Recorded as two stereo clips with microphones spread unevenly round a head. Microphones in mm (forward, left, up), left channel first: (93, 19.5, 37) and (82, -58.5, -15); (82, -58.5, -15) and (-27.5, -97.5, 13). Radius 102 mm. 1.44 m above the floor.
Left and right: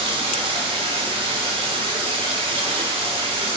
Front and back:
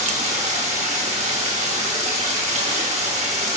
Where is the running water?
175° right, 1.9 m.